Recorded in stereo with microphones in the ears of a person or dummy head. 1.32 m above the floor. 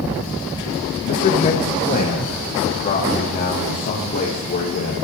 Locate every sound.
1.1 s a man speaking: 35° left (ahead or behind), 1.4 m; by 5.0 s 40° left (ahead or behind), 3.5 m